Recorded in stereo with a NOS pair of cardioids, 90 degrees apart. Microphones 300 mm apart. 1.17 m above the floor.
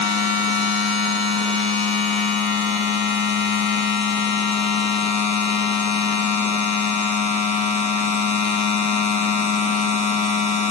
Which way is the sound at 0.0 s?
65° left.